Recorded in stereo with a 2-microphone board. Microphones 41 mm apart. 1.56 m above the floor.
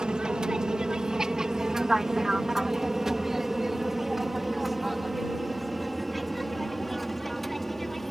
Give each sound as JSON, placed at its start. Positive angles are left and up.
{"t": 0.0, "sound": "an aircraft", "side_deg": -20}